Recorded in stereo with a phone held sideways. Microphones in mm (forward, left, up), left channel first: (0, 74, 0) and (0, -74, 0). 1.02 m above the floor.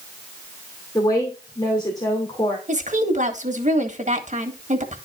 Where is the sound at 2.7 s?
55° right (ahead or behind), 1.7 m.